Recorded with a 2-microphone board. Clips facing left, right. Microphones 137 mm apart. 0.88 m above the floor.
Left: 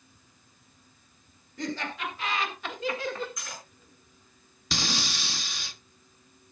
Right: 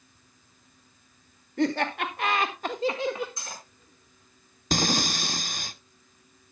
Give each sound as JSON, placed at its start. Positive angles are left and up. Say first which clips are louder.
{"t": 1.6, "sound": "laughter", "louder": "right 8 dB", "side_deg": -65, "distance_m": 2.0}
{"t": 3.4, "sound": "cutlery clinking", "louder": "right 1 dB", "side_deg": -30, "distance_m": 6.0}
{"t": 4.7, "sound": "breathing", "louder": "right 7 dB", "side_deg": -45, "distance_m": 0.7}